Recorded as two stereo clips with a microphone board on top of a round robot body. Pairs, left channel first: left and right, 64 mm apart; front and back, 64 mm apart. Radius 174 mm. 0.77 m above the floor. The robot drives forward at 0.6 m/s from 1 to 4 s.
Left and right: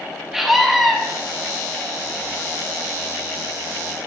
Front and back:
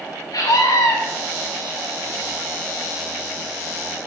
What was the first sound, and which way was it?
A scream, 5° right.